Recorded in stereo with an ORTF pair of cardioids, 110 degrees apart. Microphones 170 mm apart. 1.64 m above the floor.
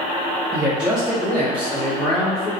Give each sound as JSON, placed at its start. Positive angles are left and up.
{"t": 0.5, "sound": "a man speaking", "azimuth_deg": -15, "distance_m": 0.8}